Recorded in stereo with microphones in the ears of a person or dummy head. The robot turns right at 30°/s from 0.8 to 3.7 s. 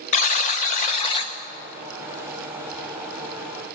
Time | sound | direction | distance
0.1 | a buzzer | 45° left (ahead or behind) | 0.8 m